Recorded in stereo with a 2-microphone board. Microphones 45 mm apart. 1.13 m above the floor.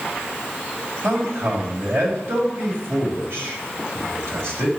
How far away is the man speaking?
About 3 m.